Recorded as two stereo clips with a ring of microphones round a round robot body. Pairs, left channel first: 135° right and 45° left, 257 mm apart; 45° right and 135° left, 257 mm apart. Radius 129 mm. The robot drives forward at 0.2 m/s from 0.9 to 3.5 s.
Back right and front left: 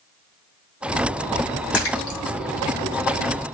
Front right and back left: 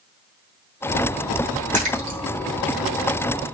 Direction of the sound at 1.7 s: 165° right.